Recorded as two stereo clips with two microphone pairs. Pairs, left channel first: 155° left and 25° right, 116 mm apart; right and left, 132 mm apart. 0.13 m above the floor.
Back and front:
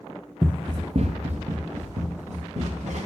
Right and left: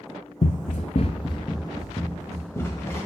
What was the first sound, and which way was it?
Running footsteps, 120° right.